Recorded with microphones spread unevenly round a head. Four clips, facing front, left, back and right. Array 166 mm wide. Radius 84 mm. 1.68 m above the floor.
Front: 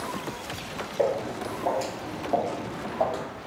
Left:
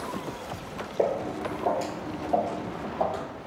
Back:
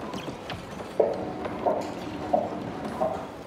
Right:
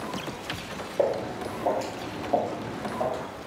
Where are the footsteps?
150° right, 1.9 m; by 3.2 s 5° left, 2 m.